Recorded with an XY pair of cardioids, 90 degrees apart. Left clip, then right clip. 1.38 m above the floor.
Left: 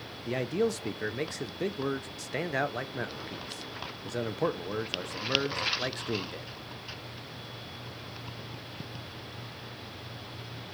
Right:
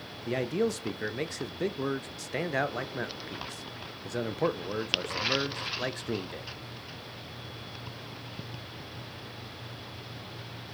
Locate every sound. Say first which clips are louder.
0.3 s a man speaking: even; 5° right, 0.6 m